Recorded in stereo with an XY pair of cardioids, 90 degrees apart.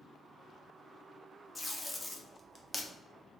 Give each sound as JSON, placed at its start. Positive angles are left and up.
{"t": 1.6, "sound": "tape being pulled", "azimuth_deg": 20, "distance_m": 0.5}